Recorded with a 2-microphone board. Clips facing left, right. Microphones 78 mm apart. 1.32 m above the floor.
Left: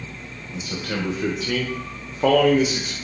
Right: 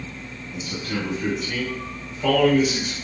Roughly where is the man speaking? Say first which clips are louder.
Left 1 dB; left.